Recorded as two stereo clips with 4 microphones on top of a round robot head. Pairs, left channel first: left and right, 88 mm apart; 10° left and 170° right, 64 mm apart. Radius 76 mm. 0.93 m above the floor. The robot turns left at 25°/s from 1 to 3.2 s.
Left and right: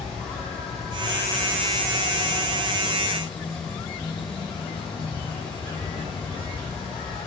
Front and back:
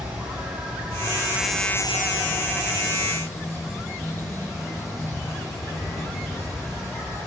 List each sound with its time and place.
0.0 s an insect: 120° left, 10 m; by 7.3 s 65° left, 10 m